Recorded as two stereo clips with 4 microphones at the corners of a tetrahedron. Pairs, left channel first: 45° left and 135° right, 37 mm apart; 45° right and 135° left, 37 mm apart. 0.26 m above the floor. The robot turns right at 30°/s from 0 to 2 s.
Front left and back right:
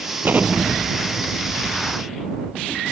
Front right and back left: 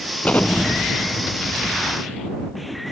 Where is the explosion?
95° right; by 2.8 s 45° right.